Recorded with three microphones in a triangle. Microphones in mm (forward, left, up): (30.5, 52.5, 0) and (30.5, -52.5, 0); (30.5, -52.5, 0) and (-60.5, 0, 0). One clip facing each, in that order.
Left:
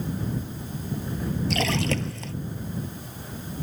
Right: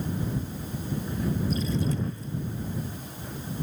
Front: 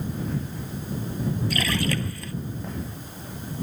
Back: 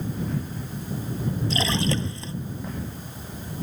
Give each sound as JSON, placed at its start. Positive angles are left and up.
{"t": 1.5, "sound": "a splash", "azimuth_deg": 85}